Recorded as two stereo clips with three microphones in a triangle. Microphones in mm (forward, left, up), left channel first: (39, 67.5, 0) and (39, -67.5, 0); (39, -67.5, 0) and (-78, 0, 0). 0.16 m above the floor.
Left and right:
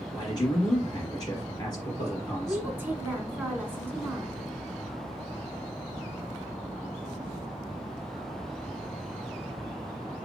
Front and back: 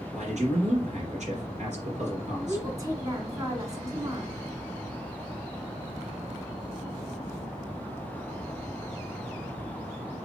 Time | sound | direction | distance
0.1 | a man speaking | 145° left | 2.5 m
2.5 | a woman speaking | 160° right | 1.6 m